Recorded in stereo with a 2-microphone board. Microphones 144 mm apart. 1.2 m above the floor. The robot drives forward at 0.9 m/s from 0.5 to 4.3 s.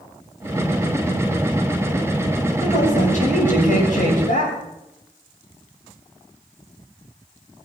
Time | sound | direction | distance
2.6 | a woman speaking | 55° left (ahead or behind) | 7.5 m